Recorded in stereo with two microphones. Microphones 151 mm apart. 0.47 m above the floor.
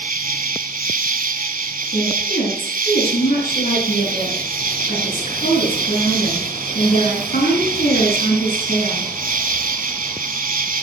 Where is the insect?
65° right (ahead or behind), 1.1 m.